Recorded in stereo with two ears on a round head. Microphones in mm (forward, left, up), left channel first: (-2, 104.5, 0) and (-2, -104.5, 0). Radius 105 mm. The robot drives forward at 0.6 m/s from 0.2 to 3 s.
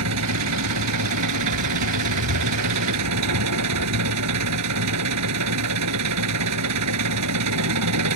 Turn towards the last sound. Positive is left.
turn(degrees=-80)